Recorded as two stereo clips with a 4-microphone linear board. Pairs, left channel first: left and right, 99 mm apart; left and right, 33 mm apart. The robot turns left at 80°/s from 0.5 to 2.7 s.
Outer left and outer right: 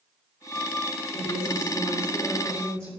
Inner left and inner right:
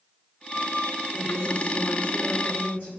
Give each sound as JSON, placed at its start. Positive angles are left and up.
{"t": 1.1, "sound": "a woman speaking", "azimuth_deg": 180, "distance_m": 5.0}